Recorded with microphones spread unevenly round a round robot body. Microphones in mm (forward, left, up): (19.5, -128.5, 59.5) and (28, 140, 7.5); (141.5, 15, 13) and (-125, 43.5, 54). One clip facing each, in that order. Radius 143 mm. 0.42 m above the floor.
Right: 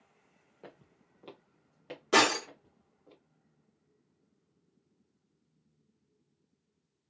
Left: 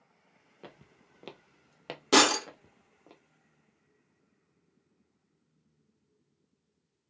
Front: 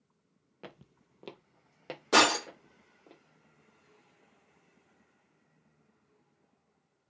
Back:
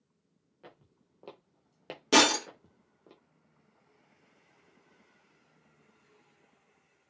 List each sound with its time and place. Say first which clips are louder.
0.6 s footsteps: left 1 dB, front 5 dB; 20° left, 0.6 m; by 3.1 s 100° left, 1.3 m
2.1 s breaking glass: left 3 dB, back 2 dB; 130° left, 1.8 m